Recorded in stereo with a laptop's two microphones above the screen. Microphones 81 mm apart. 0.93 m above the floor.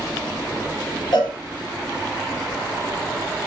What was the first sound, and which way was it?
A cowbell, 80° left.